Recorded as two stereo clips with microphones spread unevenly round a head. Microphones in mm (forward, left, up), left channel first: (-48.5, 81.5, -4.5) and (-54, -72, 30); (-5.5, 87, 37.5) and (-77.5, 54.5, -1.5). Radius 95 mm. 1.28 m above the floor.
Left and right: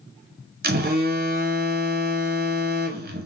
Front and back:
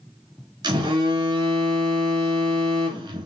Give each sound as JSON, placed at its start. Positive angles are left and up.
{"t": 0.6, "sound": "a phone buzzing", "azimuth_deg": -125, "distance_m": 1.1}